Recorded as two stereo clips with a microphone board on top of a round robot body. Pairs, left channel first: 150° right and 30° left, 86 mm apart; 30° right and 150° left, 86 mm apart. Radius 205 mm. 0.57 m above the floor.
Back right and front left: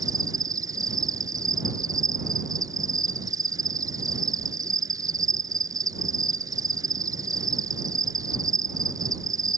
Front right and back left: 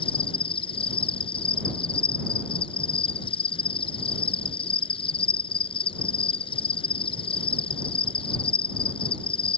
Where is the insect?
20° right.